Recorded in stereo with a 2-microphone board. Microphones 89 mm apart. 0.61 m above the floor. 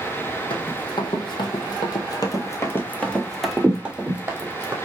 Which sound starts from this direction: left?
Running footsteps, at 0.5 s.